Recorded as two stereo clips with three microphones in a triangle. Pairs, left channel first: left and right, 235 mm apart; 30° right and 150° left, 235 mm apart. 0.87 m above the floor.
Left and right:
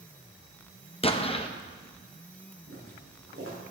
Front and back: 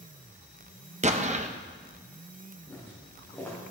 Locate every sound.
1.0 s an explosion: 130° left, 0.6 m
2.7 s footsteps: 110° right, 4.5 m